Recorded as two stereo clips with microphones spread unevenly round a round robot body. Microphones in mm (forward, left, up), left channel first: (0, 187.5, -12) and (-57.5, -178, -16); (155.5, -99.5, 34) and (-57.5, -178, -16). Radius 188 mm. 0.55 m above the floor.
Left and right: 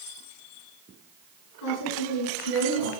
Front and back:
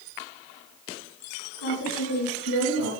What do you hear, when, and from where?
1.6 s a woman speaking: 40° left, 6.5 m; by 2.9 s 45° left, 6.5 m